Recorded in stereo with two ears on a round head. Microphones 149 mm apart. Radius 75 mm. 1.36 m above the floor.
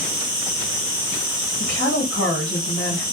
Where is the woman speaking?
65° left (ahead or behind), 1.1 m.